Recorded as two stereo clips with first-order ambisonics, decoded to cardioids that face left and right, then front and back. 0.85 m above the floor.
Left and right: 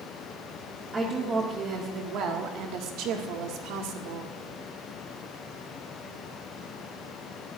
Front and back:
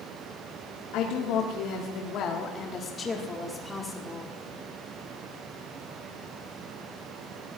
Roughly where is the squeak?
No squeak in this recording.